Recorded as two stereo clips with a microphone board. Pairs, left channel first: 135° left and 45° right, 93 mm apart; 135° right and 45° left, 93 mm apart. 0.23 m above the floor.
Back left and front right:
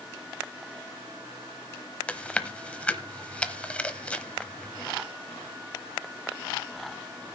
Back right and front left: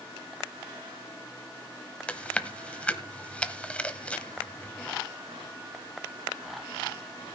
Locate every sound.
2.1 s chewing: straight behind, 0.8 m